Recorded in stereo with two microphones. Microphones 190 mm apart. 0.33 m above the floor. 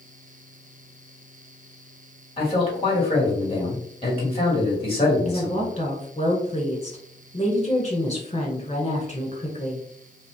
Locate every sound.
2.4 s a man speaking: 30° left (ahead or behind), 1.9 m
5.2 s a woman speaking: 35° left (ahead or behind), 1.2 m